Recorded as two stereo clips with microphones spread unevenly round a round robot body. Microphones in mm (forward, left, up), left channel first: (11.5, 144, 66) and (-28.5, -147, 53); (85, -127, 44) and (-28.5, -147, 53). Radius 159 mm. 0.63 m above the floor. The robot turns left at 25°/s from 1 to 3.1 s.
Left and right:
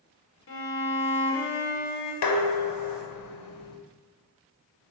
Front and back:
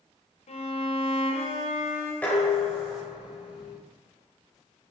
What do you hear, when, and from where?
0.5 s a violin: 35° left, 2.5 m; by 2.1 s 10° left, 2.5 m
2.2 s dishes clattering: 95° left, 2 m; by 3.8 s 70° left, 2 m